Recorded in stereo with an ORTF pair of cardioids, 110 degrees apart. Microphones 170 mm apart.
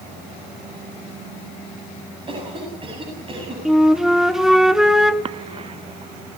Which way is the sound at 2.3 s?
30° right.